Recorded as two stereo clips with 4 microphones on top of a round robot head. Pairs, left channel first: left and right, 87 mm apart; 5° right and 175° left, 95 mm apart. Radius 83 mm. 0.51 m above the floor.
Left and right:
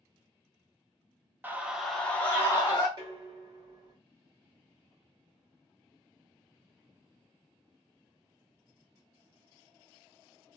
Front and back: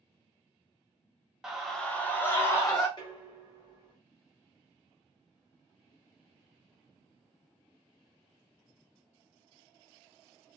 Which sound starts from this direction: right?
A scream, at 1.4 s.